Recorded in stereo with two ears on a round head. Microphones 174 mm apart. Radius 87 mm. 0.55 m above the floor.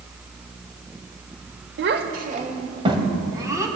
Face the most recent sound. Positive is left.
turn(degrees=-15)  # may be behind; listen again after turning